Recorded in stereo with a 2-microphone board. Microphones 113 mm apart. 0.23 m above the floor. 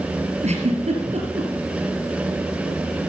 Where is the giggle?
75° right (ahead or behind), 3.5 m.